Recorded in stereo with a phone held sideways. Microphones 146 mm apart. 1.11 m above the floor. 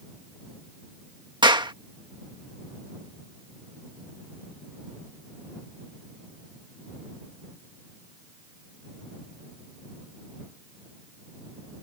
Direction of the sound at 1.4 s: 30° right (ahead or behind).